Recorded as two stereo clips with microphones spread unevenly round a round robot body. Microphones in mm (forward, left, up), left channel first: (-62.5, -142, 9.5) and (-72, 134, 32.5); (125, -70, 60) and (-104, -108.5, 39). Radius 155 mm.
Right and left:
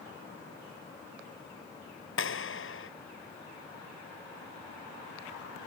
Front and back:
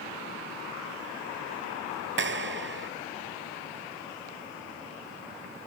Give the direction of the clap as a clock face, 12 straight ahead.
4 o'clock.